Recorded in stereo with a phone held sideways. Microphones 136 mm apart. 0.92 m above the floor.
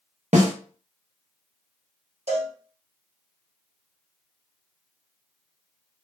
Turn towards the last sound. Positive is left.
turn(degrees=-50)  # may be behind; listen again after turning